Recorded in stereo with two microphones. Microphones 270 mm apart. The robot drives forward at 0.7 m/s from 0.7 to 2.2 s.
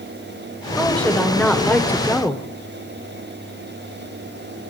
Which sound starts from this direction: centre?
A woman speaking, at 0.8 s.